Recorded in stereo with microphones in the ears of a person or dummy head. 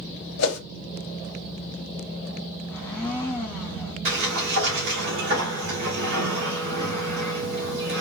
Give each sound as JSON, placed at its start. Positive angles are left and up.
{"t": 0.4, "sound": "a whoosh", "side_deg": 65, "distance_m": 1.1}
{"t": 2.7, "sound": "a blender", "side_deg": 10, "distance_m": 1.1}
{"t": 4.0, "sound": "a sliding door", "side_deg": -65, "distance_m": 1.6}